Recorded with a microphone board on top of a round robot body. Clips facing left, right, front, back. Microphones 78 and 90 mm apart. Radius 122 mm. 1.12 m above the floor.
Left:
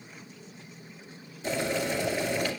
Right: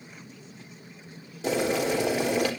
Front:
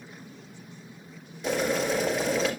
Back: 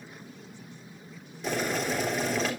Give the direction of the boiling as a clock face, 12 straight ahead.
3 o'clock.